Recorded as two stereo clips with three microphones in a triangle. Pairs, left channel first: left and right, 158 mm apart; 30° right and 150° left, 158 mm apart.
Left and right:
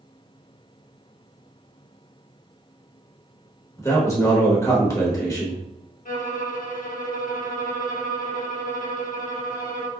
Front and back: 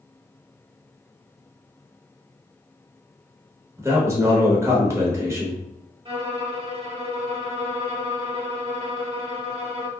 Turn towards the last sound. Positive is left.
turn(degrees=100)